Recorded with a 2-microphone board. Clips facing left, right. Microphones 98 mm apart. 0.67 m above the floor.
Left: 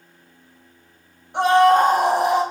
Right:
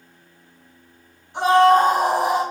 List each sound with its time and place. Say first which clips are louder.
1.3 s a scream: even; 60° left (ahead or behind), 4 m